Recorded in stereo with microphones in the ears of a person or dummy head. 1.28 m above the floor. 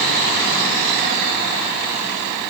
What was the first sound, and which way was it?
Only background noise.